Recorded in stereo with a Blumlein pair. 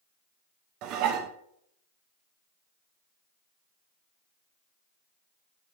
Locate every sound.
0.8 s dishes clattering: 40° right, 0.9 m